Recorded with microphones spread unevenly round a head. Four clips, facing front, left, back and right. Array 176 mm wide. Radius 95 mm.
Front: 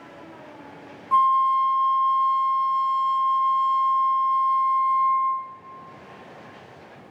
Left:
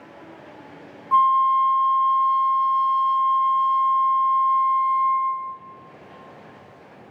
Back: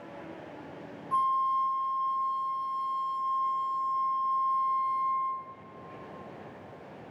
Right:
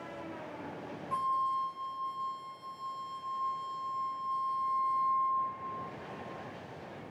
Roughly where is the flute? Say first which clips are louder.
Left 15 dB, front 8 dB; ahead left.